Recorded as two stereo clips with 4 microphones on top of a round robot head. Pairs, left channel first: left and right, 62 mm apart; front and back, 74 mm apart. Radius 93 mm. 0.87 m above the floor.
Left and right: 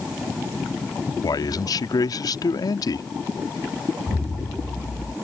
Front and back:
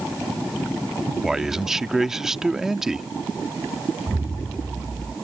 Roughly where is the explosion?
Left.